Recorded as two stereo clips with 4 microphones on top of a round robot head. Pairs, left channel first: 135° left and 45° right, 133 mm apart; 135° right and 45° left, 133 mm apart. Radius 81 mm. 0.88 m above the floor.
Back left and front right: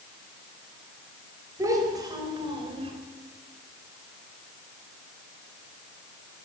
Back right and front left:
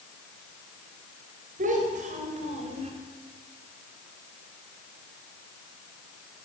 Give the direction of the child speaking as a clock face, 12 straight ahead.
11 o'clock.